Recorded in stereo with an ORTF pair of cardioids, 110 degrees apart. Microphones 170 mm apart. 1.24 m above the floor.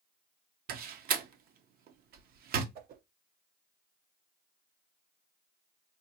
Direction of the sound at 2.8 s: 70° right.